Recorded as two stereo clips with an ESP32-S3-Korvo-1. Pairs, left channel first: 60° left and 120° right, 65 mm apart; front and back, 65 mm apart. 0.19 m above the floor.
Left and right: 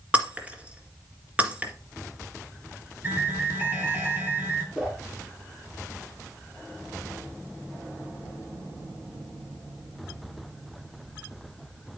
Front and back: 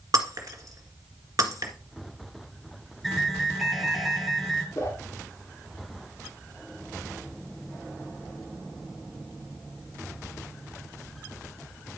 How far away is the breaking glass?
About 1.8 m.